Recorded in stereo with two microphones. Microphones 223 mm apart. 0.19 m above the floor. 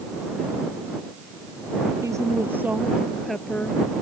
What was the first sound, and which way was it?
A woman speaking, 15° right (ahead or behind).